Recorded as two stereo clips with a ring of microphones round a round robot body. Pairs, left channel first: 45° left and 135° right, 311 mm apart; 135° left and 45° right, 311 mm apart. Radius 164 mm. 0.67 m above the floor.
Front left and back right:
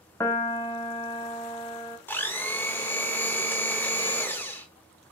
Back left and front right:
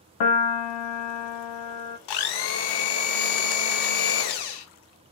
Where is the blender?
130° left, 0.7 m.